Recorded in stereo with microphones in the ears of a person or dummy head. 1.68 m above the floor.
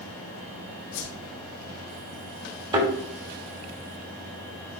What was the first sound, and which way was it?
A whoosh, 80° left.